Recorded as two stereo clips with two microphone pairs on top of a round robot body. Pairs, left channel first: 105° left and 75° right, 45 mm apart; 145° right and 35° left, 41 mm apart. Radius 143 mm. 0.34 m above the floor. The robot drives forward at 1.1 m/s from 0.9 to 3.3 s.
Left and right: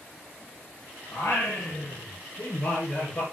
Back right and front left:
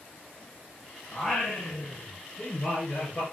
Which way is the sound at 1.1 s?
140° left.